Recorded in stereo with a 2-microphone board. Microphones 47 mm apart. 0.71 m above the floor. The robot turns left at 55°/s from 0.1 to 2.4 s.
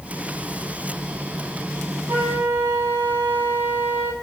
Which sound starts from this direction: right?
A flute, at 2.1 s.